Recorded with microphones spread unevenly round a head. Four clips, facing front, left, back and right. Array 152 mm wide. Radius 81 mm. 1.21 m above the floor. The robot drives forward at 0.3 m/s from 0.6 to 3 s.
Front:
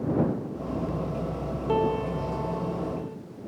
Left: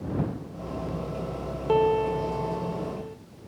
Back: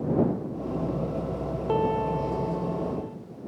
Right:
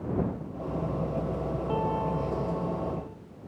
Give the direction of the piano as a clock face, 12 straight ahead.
8 o'clock.